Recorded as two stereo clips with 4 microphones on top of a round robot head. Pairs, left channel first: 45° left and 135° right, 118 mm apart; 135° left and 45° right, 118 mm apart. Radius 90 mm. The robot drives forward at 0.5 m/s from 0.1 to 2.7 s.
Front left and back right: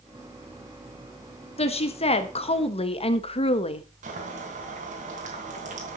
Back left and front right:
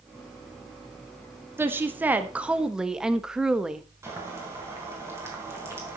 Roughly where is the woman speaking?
Ahead left.